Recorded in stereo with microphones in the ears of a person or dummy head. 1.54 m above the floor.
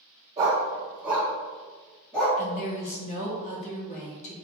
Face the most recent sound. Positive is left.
turn(degrees=30)  # may be behind; listen again after turning